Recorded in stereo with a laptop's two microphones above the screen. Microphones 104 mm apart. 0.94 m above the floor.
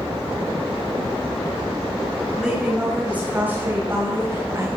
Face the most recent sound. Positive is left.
turn(degrees=-25)  # may be behind; listen again after turning